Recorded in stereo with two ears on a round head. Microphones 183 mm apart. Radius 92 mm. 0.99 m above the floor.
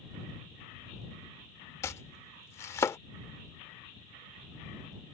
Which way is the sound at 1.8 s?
15° left (ahead or behind).